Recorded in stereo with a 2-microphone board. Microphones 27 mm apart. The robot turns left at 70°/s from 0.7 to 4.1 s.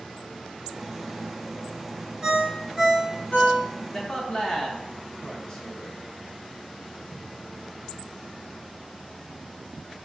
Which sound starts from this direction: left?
A man speaking, at 3.9 s.